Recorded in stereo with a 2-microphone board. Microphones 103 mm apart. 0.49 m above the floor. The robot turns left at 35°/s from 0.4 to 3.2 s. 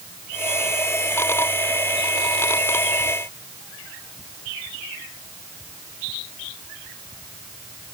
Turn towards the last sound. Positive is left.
No sound to turn to.